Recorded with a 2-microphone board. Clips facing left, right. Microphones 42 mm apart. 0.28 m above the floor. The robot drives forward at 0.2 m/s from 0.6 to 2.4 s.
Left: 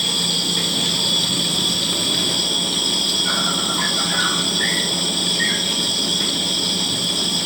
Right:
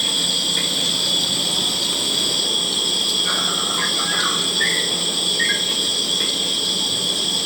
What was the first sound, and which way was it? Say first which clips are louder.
An insect: even; 15° right (ahead or behind).